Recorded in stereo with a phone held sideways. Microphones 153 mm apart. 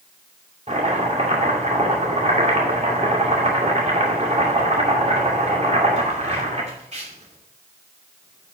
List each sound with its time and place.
0.7 s chopping: 45° right (ahead or behind), 2.5 m